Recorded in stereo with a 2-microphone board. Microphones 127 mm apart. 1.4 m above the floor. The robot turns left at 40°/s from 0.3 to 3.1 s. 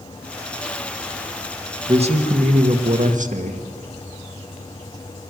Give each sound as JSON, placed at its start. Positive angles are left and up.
{"t": 1.9, "sound": "a man speaking", "azimuth_deg": -50, "distance_m": 1.8}